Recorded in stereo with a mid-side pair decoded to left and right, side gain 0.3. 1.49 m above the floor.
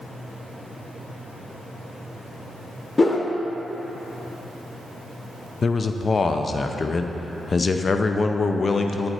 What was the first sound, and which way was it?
A whoosh, 35° left.